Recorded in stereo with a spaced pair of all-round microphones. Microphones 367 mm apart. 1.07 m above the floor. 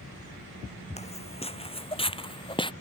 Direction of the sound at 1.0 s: 15° left (ahead or behind).